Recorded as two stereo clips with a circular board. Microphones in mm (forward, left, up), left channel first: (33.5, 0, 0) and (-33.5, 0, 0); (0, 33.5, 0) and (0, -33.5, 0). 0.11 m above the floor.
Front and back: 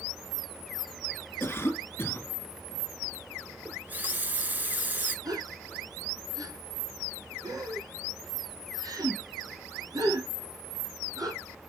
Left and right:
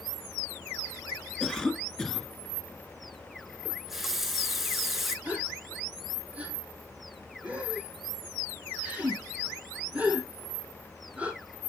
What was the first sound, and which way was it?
A cough, 15° left.